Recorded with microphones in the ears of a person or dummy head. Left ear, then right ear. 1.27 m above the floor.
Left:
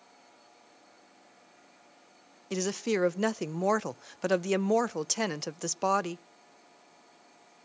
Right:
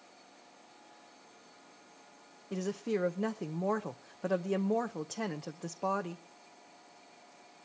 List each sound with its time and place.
2.5 s a woman speaking: 80° left, 0.7 m